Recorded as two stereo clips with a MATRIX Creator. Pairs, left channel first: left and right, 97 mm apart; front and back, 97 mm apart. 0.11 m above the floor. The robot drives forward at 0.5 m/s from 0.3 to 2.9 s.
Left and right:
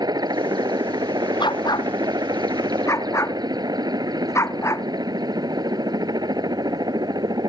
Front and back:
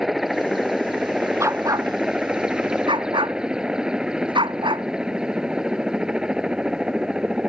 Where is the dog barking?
120° left; by 4.8 s 150° left.